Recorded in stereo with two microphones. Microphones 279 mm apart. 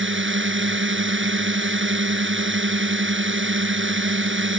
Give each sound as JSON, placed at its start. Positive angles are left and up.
{"t": 0.0, "sound": "a drone", "side_deg": -45}